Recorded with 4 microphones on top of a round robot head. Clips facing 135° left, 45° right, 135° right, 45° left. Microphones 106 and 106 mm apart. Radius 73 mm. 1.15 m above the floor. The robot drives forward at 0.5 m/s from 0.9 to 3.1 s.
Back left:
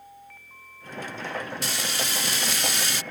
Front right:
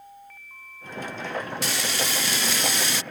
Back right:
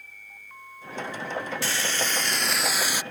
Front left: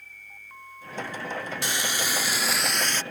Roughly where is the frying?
Ahead right.